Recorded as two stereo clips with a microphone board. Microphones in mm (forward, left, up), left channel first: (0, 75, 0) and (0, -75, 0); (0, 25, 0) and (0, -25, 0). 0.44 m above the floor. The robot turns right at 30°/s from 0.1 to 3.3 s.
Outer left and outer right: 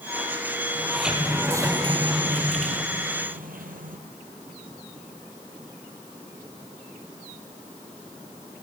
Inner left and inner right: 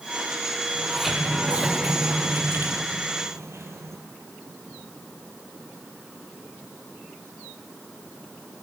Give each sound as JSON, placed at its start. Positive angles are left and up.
{"t": 0.8, "sound": "a sliding door", "azimuth_deg": 175, "distance_m": 2.0}